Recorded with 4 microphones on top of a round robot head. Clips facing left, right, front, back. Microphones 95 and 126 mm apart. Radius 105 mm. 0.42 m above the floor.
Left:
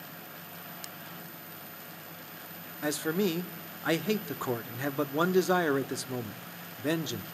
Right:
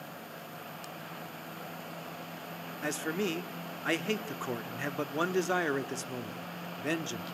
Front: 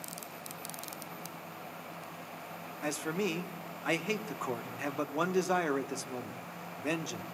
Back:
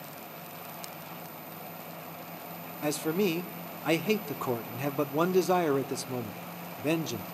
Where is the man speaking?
150° left, 0.9 m.